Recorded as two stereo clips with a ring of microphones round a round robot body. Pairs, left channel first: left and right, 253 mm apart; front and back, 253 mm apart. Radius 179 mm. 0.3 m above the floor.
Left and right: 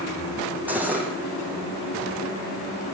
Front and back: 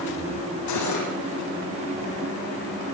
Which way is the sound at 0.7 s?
5° right.